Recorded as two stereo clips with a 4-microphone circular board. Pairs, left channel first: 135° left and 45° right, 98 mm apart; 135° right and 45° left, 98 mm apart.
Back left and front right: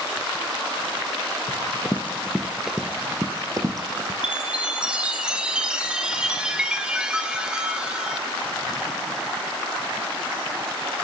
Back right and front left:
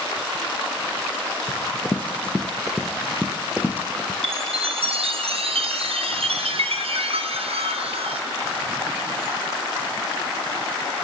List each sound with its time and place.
1.5 s running footsteps: 170° left, 1.0 m; by 4.1 s 20° right, 1.1 m
4.2 s a chime: 35° left, 0.6 m